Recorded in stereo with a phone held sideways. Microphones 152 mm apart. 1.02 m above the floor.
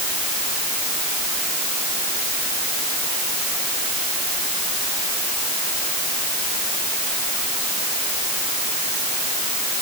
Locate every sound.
Only background noise.